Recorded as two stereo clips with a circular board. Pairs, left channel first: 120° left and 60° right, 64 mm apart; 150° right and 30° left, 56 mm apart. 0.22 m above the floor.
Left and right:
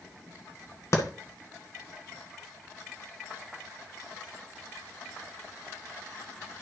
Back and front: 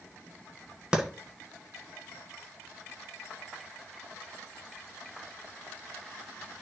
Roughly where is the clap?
Left.